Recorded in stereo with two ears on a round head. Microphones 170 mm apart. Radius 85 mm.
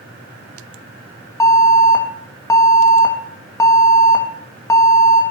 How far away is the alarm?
About 1.4 m.